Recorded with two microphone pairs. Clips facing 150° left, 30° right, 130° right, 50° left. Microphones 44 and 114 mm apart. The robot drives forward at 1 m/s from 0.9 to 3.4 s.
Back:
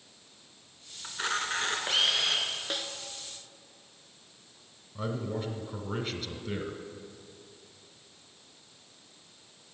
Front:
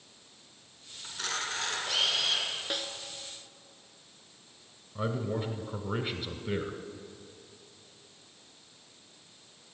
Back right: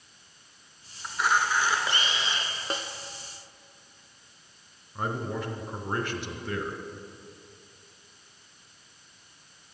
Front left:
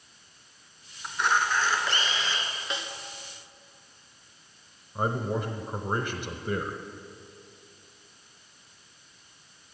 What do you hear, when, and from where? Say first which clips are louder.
1.0 s a camera shutter: back 4 dB, even; 135° left, 1.5 m; by 2.5 s 170° left, 2.5 m
2.7 s a snare drum: even, back right 3 dB; 120° right, 0.7 m; by 2.9 s 135° right, 0.8 m
5.0 s a man speaking: front 2 dB, front left 3 dB; 20° left, 1.0 m